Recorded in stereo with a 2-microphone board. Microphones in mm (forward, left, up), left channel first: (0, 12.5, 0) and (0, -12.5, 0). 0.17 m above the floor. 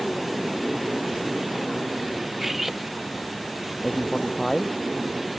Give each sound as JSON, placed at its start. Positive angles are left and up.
{"t": 2.4, "sound": "cutlery clinking", "side_deg": -10}
{"t": 3.8, "sound": "a man speaking", "side_deg": 20}